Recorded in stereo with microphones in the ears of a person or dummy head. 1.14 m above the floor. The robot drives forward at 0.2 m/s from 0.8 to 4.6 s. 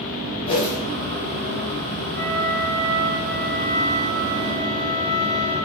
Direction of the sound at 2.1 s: Centre (ahead or behind).